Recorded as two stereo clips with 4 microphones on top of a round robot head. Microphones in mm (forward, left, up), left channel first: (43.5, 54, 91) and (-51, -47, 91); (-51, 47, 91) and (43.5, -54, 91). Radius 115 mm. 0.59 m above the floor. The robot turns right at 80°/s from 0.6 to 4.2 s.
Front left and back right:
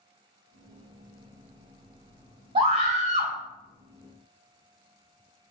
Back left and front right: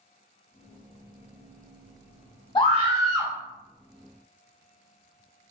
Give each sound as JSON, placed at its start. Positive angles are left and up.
{"t": 2.5, "sound": "a scream", "azimuth_deg": -175, "distance_m": 2.0}